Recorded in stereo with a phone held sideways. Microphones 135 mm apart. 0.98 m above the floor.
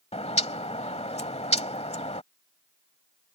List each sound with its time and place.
0.1 s a bird: 50° left (ahead or behind)